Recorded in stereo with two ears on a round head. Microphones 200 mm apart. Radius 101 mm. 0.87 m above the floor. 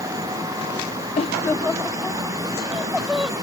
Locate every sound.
1.2 s laughter: 25° left (ahead or behind); by 3.3 s 5° right (ahead or behind)